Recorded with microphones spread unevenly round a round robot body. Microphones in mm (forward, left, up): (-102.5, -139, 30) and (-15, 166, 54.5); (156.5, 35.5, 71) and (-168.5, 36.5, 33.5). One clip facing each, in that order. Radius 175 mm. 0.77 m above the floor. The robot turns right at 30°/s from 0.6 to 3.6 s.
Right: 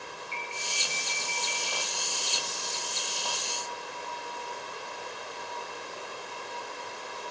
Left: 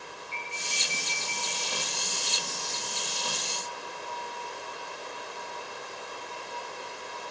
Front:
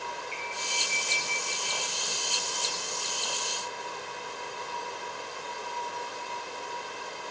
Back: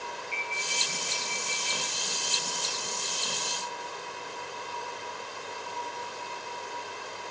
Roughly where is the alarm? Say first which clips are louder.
Right 1 dB, even; ahead right.